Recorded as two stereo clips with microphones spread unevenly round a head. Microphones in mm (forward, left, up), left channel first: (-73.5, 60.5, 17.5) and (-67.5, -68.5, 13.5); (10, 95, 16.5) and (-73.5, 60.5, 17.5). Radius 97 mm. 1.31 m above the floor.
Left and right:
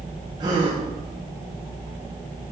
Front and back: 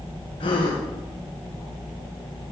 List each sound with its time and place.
0.4 s a gasp: 20° right, 1.2 m